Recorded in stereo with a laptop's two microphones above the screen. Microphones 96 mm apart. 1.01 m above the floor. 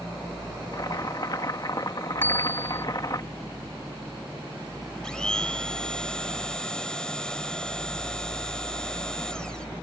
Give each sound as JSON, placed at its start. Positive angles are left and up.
{"t": 0.7, "sound": "boiling", "side_deg": 45}
{"t": 2.2, "sound": "a bicycle bell", "side_deg": 20}
{"t": 5.0, "sound": "a blender", "side_deg": 10}